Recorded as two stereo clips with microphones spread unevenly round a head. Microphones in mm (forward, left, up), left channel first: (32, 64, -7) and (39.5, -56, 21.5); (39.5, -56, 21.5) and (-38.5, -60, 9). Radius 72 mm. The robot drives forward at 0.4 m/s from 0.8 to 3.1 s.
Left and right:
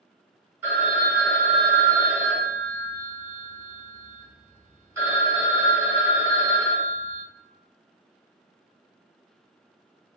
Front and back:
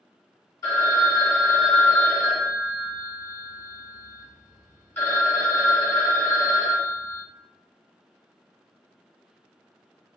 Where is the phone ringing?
20° right, 1.9 m; by 7.2 s 45° right, 1.2 m.